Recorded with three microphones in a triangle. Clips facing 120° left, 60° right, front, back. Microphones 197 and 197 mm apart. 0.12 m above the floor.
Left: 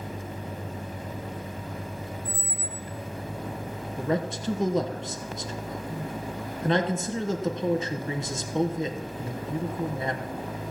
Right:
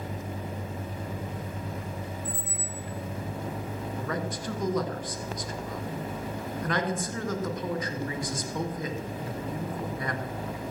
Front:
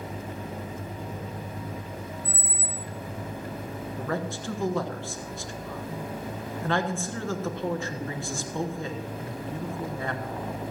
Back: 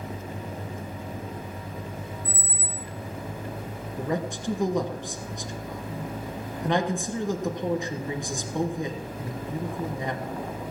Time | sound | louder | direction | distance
2.2 | a squeak | even, even | 50° right | 1.1 m
4.0 | a man speaking | left 7 dB, back 3 dB | 130° left | 1.3 m